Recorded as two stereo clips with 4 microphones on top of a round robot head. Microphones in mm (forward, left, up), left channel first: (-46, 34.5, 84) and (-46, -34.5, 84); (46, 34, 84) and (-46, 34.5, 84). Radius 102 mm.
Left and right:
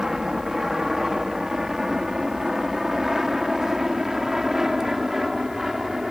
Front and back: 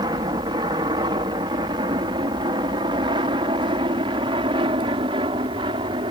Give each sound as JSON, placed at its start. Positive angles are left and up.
{"t": 0.0, "sound": "an aircraft", "azimuth_deg": -170}